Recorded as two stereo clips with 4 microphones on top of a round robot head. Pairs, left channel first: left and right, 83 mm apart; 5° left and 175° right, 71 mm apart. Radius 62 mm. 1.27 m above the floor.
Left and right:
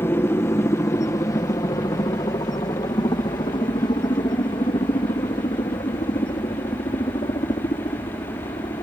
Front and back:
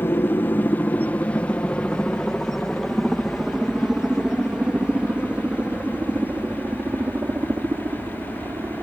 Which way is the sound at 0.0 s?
45° left.